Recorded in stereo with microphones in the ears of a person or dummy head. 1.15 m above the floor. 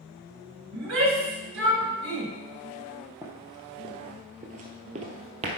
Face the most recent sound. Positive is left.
turn(degrees=-35)  # may be behind; listen again after turning